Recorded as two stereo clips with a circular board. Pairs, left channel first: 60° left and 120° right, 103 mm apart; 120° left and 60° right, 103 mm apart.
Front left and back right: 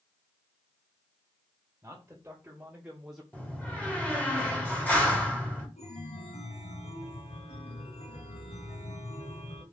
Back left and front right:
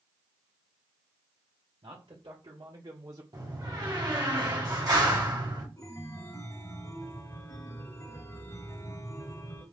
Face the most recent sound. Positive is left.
turn(degrees=60)